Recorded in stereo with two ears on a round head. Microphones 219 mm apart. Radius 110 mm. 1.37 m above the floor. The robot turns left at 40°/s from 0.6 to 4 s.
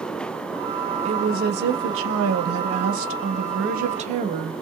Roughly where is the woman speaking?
Ahead right.